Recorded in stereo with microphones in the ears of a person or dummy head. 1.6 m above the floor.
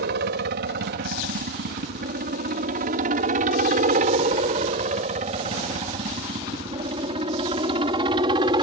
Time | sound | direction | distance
0.0 | a helicopter | 55° right (ahead or behind) | ?